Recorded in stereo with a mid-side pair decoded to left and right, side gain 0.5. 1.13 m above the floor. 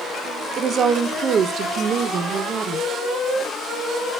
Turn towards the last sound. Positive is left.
turn(degrees=-45)